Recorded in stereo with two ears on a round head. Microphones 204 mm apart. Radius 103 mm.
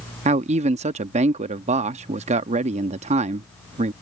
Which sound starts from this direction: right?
A man speaking, at 0.2 s.